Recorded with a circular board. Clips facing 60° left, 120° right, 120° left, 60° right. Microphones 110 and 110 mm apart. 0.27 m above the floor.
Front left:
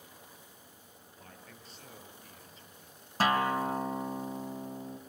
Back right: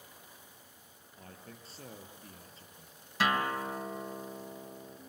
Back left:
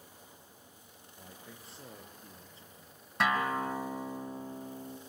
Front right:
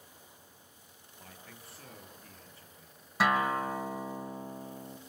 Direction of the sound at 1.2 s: 175° right.